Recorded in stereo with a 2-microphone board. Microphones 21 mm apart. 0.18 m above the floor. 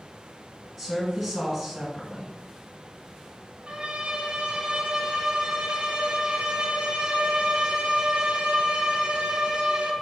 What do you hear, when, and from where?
0.8 s a woman speaking: centre (ahead or behind), 1.7 m
3.7 s a violin: 55° right (ahead or behind), 1.3 m